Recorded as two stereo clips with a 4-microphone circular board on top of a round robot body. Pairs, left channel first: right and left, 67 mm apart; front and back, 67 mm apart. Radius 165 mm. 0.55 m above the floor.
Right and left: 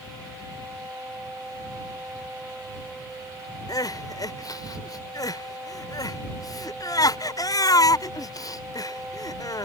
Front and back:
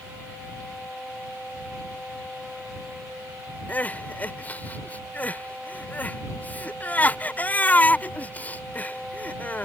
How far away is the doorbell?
I don't hear a doorbell.